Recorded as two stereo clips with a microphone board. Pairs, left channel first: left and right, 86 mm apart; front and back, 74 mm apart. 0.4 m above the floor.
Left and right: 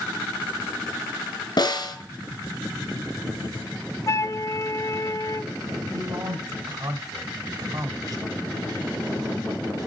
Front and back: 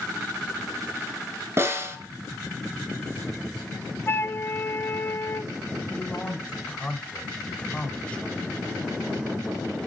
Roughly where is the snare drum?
Behind left.